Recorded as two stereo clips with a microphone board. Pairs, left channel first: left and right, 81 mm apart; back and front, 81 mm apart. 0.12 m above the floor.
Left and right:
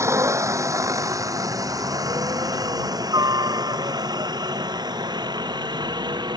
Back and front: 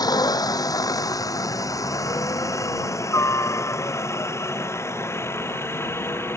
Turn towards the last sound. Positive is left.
turn(degrees=-120)